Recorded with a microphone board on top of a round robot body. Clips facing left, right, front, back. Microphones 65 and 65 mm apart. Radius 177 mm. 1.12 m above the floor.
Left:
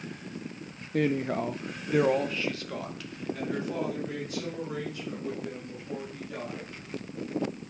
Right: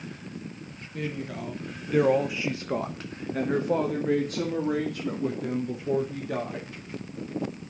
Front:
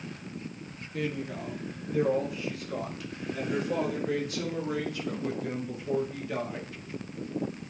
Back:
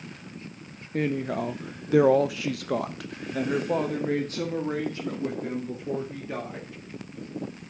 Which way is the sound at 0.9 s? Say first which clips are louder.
Left 7 dB, back 7 dB; 125° left.